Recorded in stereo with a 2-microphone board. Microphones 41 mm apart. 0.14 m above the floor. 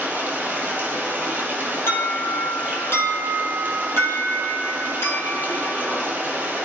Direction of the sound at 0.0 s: 35° right (ahead or behind).